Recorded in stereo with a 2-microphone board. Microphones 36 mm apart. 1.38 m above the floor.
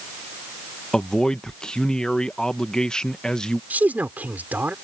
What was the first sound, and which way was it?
A man speaking, 25° left (ahead or behind).